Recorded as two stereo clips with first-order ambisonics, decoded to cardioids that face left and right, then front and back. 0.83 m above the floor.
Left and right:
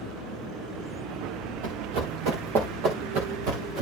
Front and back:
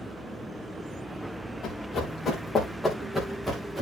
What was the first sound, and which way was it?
Running footsteps, 60° right.